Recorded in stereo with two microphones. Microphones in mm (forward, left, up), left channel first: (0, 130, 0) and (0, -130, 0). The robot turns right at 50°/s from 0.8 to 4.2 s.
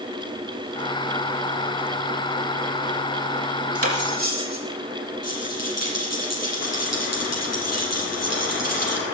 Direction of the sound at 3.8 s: 60° right (ahead or behind).